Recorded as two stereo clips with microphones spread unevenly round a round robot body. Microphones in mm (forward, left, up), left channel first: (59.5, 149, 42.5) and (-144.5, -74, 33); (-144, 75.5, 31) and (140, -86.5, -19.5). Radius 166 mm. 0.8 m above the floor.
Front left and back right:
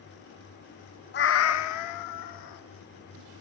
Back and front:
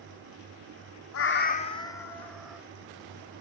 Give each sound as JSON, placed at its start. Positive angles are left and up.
{"t": 1.1, "sound": "a cat meowing", "azimuth_deg": 105, "distance_m": 0.6}